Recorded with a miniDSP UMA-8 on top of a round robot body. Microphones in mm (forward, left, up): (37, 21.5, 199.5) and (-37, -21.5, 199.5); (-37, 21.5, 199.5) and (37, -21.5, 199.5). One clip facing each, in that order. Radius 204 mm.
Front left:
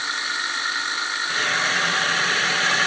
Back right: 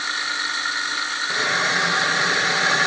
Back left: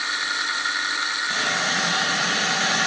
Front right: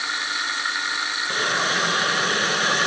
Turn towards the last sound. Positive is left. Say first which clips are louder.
# back right 2 dB, front right 3 dB
turn(degrees=-70)